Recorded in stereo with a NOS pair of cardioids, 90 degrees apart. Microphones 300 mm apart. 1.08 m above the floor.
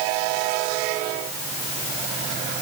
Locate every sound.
Only background noise.